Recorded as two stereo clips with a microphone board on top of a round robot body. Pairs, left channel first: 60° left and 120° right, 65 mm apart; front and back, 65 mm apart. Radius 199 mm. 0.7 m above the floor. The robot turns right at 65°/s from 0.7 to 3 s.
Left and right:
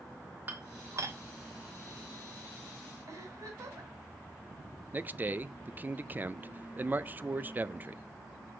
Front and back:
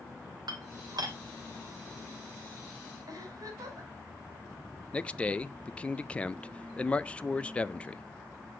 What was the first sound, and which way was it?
Dishes clattering, straight behind.